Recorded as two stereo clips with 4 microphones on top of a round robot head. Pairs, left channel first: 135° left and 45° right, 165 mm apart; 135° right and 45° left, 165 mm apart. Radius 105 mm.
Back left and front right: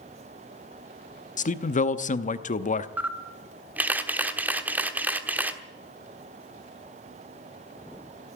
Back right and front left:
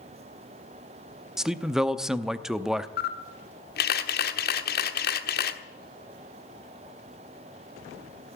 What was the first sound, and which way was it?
A man speaking, 130° left.